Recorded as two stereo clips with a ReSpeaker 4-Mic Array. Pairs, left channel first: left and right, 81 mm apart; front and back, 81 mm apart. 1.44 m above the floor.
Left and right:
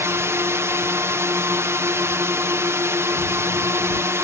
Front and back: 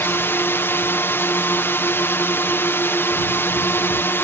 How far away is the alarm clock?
No alarm clock in this recording.